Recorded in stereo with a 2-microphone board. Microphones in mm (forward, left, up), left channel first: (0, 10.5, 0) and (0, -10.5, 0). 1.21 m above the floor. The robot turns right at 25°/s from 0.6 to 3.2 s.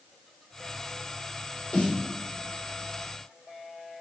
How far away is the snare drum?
About 4 m.